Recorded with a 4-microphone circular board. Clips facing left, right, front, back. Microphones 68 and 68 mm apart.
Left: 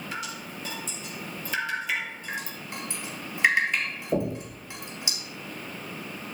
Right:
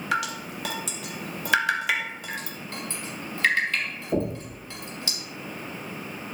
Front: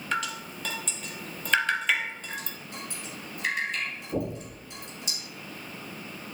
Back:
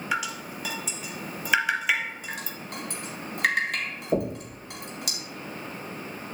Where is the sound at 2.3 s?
160° left, 2.5 m.